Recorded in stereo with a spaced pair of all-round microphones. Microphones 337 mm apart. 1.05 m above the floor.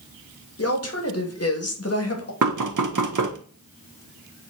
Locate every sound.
0.6 s a woman speaking: 45° left (ahead or behind), 1.0 m
2.4 s knocking: 65° right (ahead or behind), 0.6 m